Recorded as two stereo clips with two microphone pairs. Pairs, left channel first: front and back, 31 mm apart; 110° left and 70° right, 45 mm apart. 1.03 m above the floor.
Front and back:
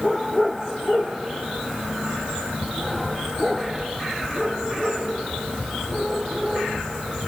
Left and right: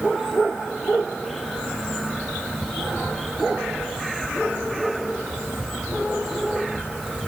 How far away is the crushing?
I don't hear crushing.